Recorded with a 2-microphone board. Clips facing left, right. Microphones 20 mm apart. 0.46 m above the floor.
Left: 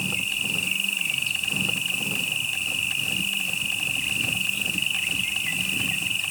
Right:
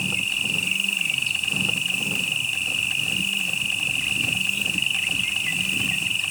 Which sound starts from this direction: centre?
An insect, at 0.0 s.